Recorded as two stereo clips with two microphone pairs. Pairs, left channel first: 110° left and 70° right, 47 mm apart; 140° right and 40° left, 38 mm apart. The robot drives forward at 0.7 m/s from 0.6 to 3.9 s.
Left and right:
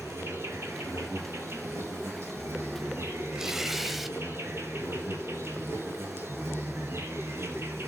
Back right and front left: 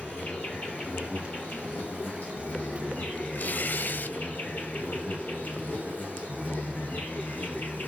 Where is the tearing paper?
145° right, 1.1 m; by 4.2 s 155° right, 1.4 m.